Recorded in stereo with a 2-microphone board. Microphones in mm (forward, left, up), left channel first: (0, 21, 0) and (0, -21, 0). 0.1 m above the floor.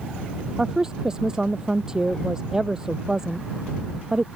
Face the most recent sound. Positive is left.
turn(degrees=-15)  # may be behind; listen again after turning